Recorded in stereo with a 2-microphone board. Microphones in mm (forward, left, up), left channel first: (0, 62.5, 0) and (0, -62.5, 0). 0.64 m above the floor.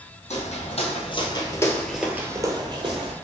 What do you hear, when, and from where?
0.3 s footsteps: 65° left (ahead or behind), 1.3 m; by 3.1 s 50° right (ahead or behind), 1.2 m